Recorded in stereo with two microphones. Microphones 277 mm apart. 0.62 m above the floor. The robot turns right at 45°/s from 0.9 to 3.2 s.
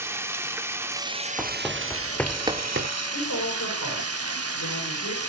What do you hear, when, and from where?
0.0 s running water: 170° right, 0.9 m; by 5.3 s 65° right, 0.9 m
1.4 s running footsteps: 5° right (ahead or behind), 1.4 m; by 2.9 s 50° right (ahead or behind), 0.9 m
3.1 s a woman speaking: 85° left, 7 m